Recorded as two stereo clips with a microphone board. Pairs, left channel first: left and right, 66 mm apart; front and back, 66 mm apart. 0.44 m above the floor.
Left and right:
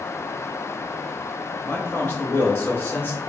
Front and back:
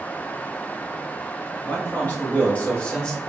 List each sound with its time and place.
1.6 s a man speaking: 50° left, 1.8 m; by 3.2 s 70° left, 1.1 m